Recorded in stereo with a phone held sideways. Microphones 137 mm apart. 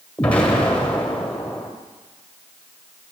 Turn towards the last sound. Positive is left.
turn(degrees=10)  # may be behind; listen again after turning